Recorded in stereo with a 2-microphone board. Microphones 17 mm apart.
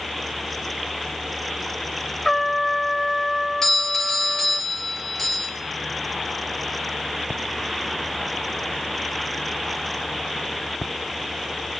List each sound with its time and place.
2.2 s a trumpet: 5° left (ahead or behind), 0.9 m
3.6 s a doorbell: 25° left (ahead or behind), 5 m